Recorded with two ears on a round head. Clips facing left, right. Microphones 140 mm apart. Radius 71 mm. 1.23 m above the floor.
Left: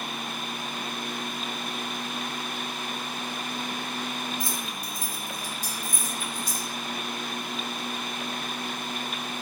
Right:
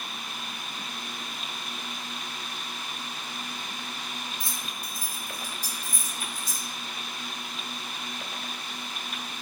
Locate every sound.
4.4 s keys jangling: 65° left (ahead or behind), 0.7 m; by 6.7 s 30° left (ahead or behind), 2.0 m